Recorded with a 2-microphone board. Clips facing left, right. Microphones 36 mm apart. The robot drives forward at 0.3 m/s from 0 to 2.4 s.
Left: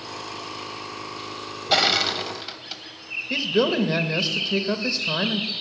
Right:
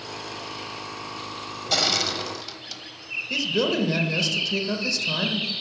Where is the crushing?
30° left (ahead or behind), 0.9 m; by 2.8 s 25° left (ahead or behind), 1.0 m.